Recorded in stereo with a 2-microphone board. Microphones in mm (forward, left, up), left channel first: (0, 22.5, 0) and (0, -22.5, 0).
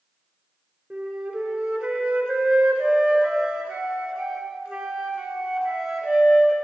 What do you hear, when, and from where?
0.9 s a flute: 15° right (ahead or behind), 1.6 m